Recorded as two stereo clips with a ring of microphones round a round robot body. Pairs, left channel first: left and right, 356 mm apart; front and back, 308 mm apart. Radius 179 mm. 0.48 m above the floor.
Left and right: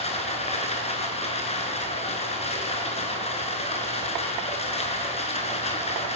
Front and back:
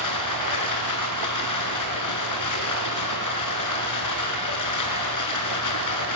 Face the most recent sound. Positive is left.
turn(degrees=20)